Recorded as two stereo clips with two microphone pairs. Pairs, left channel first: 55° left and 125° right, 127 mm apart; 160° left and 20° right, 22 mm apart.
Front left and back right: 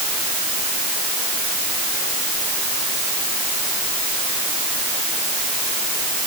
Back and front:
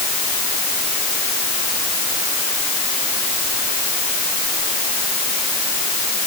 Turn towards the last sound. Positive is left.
No sound to turn to.